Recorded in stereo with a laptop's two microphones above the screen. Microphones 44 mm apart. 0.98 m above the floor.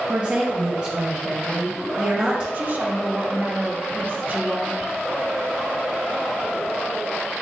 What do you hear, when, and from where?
0.1 s a woman speaking: 35° right (ahead or behind), 0.7 m
2.5 s a woman speaking: 40° right (ahead or behind), 0.7 m